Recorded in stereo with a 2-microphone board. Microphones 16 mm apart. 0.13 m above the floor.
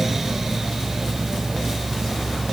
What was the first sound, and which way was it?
Only background noise.